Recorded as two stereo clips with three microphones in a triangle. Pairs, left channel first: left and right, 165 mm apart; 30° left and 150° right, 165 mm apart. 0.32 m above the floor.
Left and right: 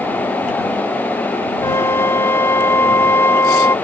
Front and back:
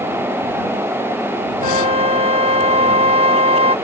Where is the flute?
165° left.